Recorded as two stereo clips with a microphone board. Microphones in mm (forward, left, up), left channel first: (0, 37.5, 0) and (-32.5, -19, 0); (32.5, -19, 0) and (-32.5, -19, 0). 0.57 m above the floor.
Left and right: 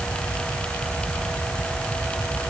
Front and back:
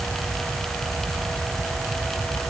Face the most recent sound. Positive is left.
No sound to turn to.